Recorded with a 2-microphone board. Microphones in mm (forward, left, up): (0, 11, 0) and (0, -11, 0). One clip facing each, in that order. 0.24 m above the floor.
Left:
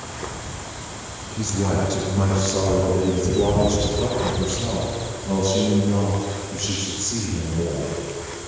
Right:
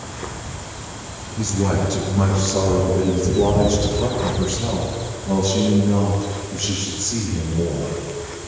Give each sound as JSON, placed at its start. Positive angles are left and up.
{"t": 1.4, "sound": "a man speaking", "side_deg": 0, "distance_m": 7.5}